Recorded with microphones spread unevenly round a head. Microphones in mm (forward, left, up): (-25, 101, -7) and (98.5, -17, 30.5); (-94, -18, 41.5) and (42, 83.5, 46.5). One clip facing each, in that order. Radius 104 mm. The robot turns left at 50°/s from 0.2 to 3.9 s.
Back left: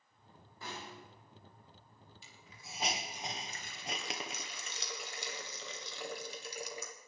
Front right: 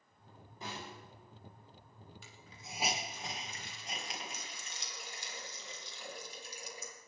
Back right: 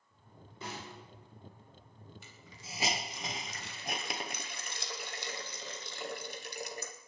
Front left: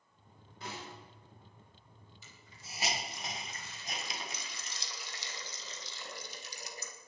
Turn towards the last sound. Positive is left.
turn(degrees=180)